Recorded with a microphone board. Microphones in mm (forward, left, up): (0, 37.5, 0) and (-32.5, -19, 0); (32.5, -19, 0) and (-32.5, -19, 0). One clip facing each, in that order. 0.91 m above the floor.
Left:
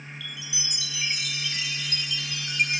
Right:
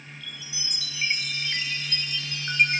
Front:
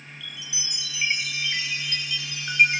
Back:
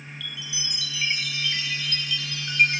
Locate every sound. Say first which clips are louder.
0.2 s a chime: left 2 dB, back 3 dB; 70° right, 2.5 m